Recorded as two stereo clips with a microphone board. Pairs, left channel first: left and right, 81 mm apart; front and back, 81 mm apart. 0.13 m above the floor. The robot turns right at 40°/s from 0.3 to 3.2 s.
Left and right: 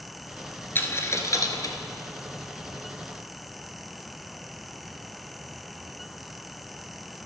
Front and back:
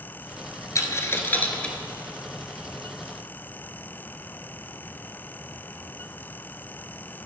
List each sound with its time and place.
0.8 s a dropped coin: 35° left, 0.9 m; by 1.8 s 75° left, 0.9 m